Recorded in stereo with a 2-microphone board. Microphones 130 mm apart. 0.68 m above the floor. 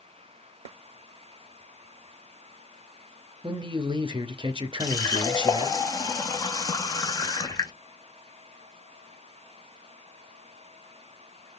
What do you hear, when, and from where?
3.4 s a man speaking: 40° right (ahead or behind), 0.6 m
4.8 s a running tap: 30° left (ahead or behind), 0.6 m